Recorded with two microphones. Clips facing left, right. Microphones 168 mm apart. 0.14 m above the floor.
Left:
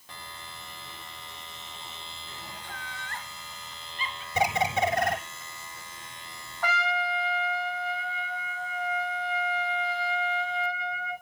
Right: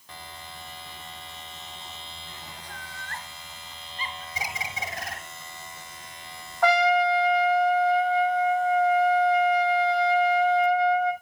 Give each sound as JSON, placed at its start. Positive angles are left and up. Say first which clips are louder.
{"t": 2.6, "sound": "laughter", "louder": "even", "side_deg": -40, "distance_m": 2.5}
{"t": 4.3, "sound": "a bird", "louder": "left 12 dB", "side_deg": 65, "distance_m": 1.4}
{"t": 6.6, "sound": "a trumpet", "louder": "right 10 dB", "side_deg": -75, "distance_m": 1.8}